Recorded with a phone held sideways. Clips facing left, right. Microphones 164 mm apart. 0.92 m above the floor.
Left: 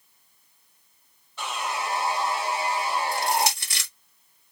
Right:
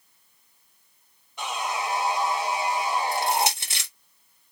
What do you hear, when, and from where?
1.4 s sawing: 15° right (ahead or behind), 1.6 m
3.1 s crushing: 20° right (ahead or behind), 1.4 m